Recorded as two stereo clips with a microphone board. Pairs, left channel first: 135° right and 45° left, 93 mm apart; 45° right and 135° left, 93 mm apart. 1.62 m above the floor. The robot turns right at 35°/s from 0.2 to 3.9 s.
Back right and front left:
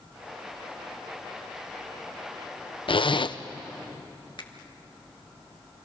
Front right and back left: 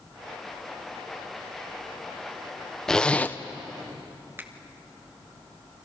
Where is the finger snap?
160° right, 1.7 m.